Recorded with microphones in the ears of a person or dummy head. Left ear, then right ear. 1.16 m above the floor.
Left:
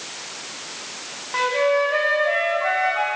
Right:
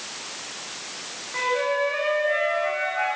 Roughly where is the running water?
No running water in this recording.